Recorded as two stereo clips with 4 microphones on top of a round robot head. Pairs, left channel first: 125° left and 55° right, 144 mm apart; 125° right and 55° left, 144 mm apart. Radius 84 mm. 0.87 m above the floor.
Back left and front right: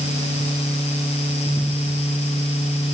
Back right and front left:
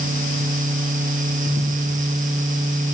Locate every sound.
Only background noise.